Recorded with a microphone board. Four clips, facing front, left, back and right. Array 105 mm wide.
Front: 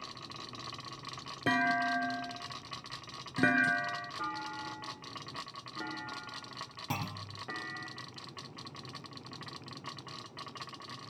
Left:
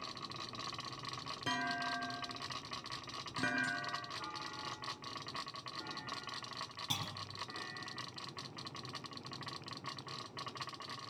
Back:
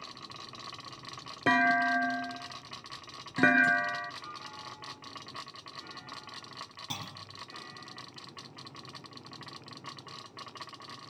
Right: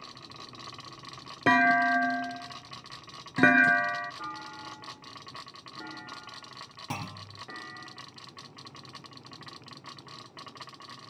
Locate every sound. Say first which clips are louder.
1.5 s a clunk: right 17 dB, back 4 dB; 105° right, 0.6 m
4.2 s a clunk: right 5 dB, front 6 dB; 25° right, 8 m
6.9 s a clunk: right 10 dB, front 8 dB; 60° right, 1.0 m